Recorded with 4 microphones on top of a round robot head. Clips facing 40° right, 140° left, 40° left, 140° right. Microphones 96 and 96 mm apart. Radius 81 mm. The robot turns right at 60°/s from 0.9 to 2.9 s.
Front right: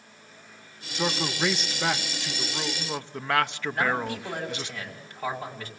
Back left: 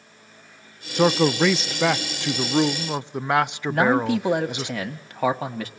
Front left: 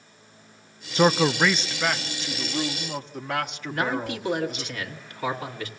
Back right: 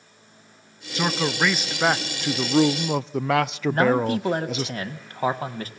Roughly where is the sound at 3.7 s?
Behind.